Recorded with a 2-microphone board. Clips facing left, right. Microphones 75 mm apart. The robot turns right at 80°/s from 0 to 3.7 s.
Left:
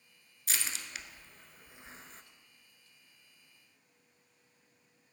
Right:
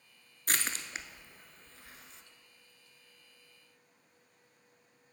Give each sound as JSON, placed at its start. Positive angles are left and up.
{"t": 0.5, "sound": "crushing", "side_deg": -60, "distance_m": 0.6}